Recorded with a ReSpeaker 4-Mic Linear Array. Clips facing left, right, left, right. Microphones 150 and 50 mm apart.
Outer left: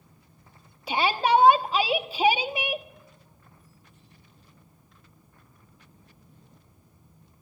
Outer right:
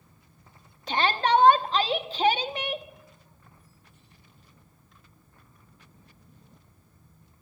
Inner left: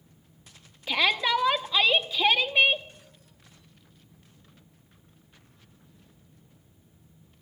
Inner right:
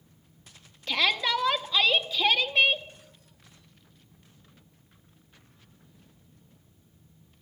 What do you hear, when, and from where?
0.9 s a shout: 10° left (ahead or behind), 0.8 m